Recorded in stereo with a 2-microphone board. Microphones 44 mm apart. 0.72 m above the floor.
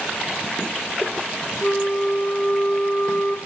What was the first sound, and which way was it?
A flute, 20° left (ahead or behind).